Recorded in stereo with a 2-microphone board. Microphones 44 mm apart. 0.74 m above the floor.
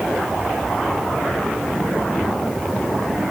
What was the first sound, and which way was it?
Only background noise.